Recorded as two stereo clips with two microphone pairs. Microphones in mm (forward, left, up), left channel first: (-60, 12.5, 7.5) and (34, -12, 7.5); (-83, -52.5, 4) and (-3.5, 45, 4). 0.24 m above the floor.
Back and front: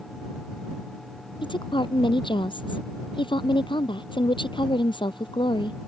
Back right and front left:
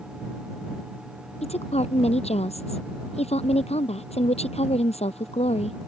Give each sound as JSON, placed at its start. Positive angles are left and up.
{"t": 1.4, "sound": "a woman speaking", "azimuth_deg": -160}